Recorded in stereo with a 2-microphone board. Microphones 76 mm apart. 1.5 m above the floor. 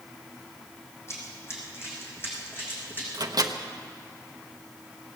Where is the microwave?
60° right (ahead or behind), 0.9 m.